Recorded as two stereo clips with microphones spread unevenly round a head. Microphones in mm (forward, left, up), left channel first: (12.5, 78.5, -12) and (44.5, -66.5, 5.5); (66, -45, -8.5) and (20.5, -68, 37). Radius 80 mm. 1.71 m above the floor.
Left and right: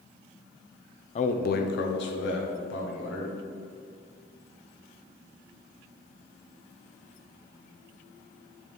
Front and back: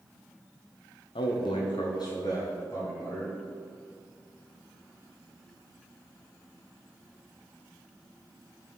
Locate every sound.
1.1 s a man speaking: 60° left, 0.5 m; by 3.3 s 110° left, 1.8 m